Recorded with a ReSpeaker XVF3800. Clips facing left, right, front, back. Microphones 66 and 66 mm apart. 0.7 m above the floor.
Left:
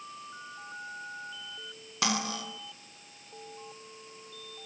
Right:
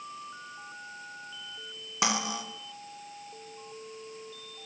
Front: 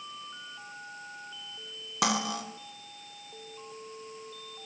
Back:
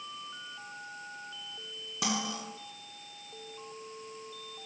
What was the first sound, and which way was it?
Cutlery clinking, 20° right.